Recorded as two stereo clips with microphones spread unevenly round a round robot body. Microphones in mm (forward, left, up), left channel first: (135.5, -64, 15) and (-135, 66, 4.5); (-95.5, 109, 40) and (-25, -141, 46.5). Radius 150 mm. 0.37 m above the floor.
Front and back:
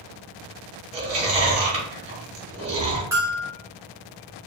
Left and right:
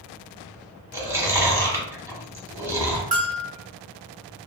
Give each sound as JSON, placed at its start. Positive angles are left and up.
{"t": 0.9, "sound": "chewing", "azimuth_deg": -150, "distance_m": 1.0}
{"t": 3.1, "sound": "a bell", "azimuth_deg": -130, "distance_m": 0.7}